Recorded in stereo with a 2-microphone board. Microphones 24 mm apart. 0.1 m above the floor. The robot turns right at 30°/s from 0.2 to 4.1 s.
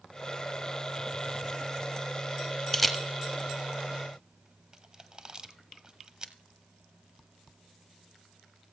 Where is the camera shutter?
5° right (ahead or behind), 1.2 m; by 6.3 s 35° right (ahead or behind), 1.2 m.